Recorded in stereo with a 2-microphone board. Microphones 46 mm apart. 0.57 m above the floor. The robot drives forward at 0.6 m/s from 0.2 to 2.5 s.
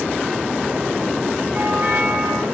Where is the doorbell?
35° right (ahead or behind), 6 m; by 2.5 s 40° right (ahead or behind), 5.5 m.